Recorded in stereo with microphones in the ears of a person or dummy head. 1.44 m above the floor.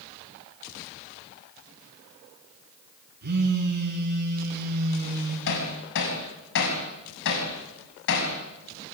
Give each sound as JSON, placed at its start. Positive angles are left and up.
{"t": 3.2, "sound": "a phone buzzing", "side_deg": -55, "distance_m": 5.0}
{"t": 5.5, "sound": "hammering", "side_deg": 65, "distance_m": 5.5}